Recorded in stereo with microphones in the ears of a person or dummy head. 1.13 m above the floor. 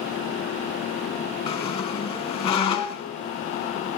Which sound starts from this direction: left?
A squeak, at 1.5 s.